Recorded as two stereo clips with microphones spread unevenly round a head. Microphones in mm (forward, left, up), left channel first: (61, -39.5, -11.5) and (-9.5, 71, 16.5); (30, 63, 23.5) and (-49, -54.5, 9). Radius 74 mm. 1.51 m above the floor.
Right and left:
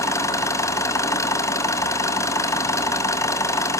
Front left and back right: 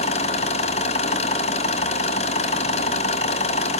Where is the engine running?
15° left, 2.5 m.